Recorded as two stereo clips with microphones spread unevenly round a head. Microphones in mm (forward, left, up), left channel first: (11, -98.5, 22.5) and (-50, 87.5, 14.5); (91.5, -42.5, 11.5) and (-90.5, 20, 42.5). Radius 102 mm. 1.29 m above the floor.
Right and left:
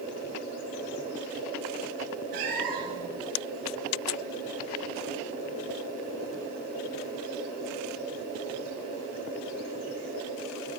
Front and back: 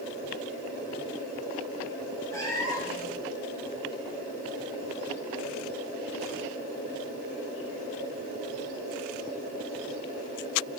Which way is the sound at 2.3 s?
60° left.